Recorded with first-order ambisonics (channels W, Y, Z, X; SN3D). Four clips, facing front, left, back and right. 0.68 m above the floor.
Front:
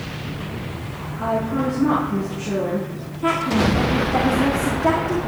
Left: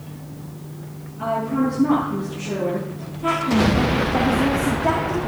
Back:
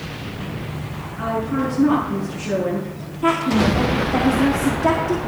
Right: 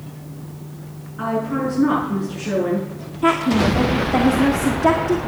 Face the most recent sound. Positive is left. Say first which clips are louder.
# right 2 dB, back 2 dB
turn(degrees=-105)